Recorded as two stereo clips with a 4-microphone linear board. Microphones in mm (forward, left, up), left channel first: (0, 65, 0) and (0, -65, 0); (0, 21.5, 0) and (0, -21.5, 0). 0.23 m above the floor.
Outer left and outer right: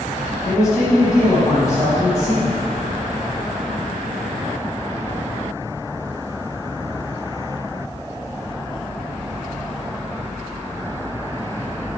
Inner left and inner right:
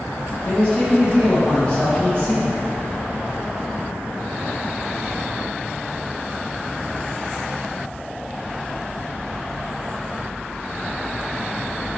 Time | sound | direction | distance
0.5 | a man speaking | 25° left (ahead or behind) | 1.2 m